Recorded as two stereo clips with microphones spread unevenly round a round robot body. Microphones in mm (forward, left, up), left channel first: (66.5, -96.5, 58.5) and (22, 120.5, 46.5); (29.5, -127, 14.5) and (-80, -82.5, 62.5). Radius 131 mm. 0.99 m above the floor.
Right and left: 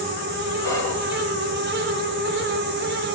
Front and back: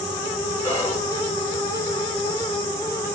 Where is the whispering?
5° right, 3 m.